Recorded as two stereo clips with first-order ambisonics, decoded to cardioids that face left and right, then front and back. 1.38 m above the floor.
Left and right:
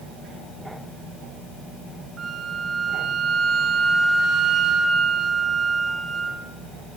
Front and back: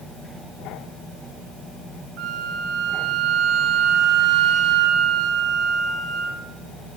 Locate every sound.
2.2 s a flute: 155° right, 2.5 m